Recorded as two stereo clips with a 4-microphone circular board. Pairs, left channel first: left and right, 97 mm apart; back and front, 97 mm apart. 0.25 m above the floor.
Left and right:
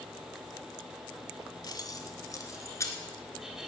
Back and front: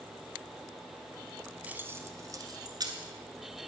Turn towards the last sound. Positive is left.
turn(degrees=35)